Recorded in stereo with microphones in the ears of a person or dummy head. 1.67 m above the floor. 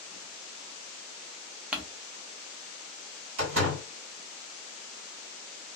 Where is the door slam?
70° right (ahead or behind), 2.0 m.